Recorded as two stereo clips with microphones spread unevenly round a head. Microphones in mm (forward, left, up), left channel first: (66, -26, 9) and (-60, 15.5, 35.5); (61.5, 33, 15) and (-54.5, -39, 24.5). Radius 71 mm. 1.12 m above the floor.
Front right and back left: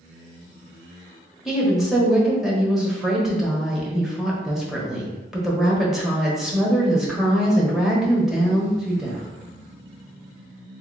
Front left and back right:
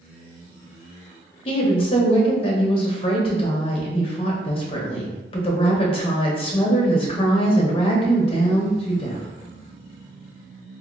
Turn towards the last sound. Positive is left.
turn(degrees=65)